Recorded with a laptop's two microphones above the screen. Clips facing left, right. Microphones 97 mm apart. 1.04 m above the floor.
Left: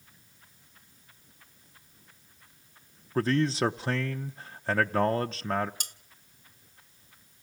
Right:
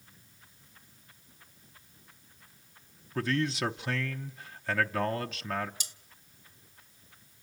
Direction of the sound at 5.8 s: 50° left (ahead or behind).